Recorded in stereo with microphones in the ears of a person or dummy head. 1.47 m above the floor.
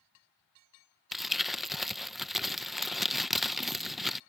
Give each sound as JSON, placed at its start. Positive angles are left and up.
{"t": 1.1, "sound": "crumpling", "side_deg": 0}